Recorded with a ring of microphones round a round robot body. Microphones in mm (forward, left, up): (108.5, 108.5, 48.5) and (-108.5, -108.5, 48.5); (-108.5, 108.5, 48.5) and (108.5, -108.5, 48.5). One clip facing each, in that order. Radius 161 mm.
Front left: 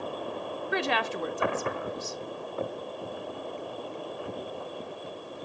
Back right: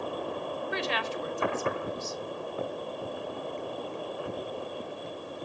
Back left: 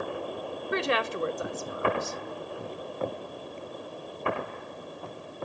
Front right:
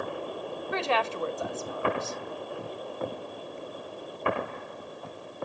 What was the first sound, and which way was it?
A woman speaking, 65° left.